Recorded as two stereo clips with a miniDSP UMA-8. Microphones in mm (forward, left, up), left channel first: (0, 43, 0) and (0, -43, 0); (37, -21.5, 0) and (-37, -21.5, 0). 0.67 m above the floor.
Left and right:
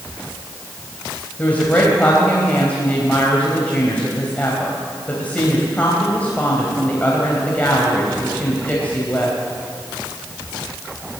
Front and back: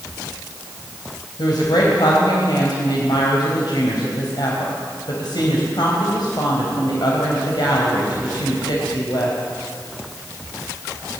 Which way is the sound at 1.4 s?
15° left.